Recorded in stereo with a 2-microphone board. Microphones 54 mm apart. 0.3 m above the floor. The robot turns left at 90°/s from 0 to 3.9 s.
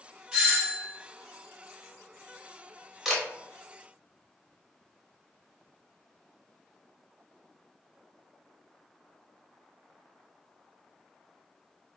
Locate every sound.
0.3 s a doorbell: 10° right (ahead or behind), 1.4 m; by 0.9 s 20° right (ahead or behind), 1.4 m
3.0 s a camera shutter: 5° right (ahead or behind), 0.9 m; by 3.2 s 5° left (ahead or behind), 0.9 m